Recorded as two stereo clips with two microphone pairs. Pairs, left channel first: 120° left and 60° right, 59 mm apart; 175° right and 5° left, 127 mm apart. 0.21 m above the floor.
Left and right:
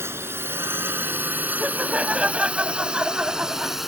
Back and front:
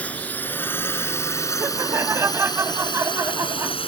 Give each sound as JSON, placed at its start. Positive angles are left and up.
{"t": 0.0, "sound": "a drone", "azimuth_deg": -100}
{"t": 1.6, "sound": "laughter", "azimuth_deg": -20}